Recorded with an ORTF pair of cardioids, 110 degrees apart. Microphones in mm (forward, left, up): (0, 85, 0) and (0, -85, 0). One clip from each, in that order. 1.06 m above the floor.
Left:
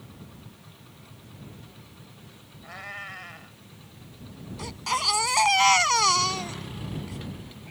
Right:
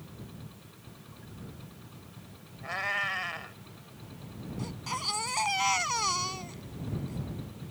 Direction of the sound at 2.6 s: 40° right.